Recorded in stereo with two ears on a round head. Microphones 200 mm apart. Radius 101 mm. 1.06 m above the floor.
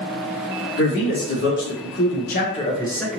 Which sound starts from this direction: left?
A man speaking, at 0.8 s.